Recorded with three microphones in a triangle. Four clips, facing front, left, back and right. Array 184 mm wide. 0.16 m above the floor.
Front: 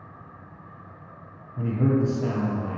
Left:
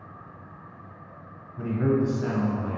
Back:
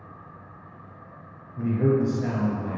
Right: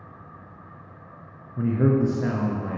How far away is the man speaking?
About 1.8 m.